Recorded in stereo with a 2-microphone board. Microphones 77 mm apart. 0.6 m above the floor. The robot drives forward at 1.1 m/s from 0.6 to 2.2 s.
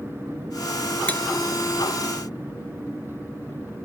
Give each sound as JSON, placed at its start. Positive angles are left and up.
{"t": 1.1, "sound": "cutlery clinking", "side_deg": 20}